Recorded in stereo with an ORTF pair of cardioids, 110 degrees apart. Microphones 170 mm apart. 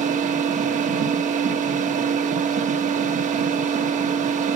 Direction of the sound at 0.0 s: 45° right.